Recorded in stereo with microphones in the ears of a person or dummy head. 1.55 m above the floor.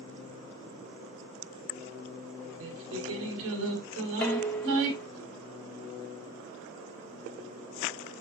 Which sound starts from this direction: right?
Singing, at 2.6 s.